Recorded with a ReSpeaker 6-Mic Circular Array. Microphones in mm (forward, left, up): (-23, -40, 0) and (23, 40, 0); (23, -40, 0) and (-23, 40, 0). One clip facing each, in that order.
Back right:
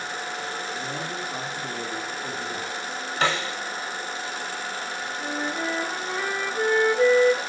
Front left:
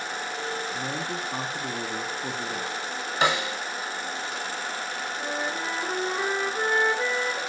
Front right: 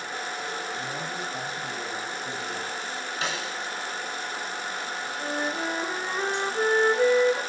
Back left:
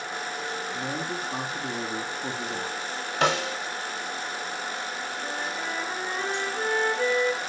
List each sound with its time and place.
0.7 s a man speaking: 85° left, 5 m
3.2 s a snare drum: 130° left, 1.1 m
5.2 s a flute: straight ahead, 6 m